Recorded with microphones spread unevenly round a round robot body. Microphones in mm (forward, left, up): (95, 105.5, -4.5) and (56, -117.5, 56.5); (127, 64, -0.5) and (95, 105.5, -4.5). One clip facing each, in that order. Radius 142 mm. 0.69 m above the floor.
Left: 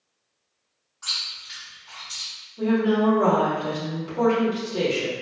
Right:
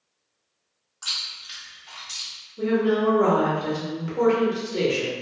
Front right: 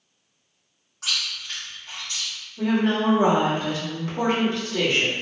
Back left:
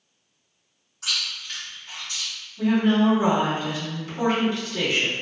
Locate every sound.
1.0 s chewing: 90° right, 1.3 m
2.6 s a woman speaking: 25° right, 1.6 m